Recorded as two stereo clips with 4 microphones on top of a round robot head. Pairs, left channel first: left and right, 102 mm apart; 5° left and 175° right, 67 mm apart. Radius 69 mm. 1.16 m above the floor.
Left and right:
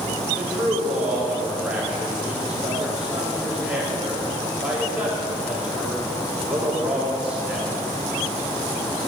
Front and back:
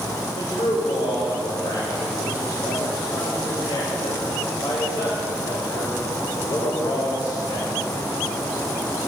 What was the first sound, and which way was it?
A man speaking, 10° right.